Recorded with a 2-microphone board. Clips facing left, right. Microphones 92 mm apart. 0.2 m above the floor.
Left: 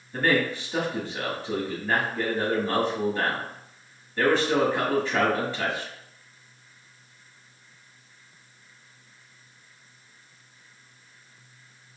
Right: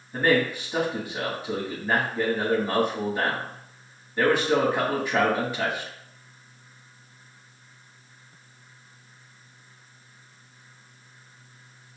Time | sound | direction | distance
0.1 | a man speaking | 15° right (ahead or behind) | 1.0 m